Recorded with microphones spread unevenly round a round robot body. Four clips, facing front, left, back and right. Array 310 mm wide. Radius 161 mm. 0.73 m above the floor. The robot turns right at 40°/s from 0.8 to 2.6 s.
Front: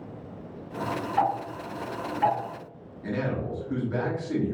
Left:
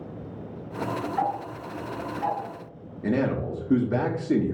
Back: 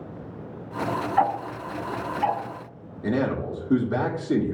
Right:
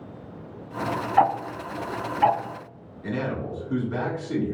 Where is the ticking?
110° right, 0.5 m; by 2.4 s 65° right, 0.5 m.